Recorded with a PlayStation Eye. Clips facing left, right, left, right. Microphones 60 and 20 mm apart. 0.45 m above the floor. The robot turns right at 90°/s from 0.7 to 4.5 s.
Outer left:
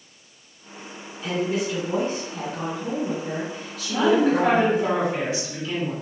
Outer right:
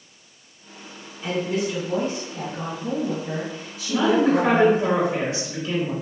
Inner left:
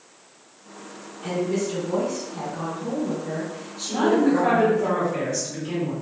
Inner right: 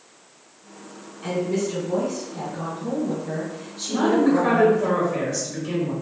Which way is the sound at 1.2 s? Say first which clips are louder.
Even, inner right 1 dB; 25° right.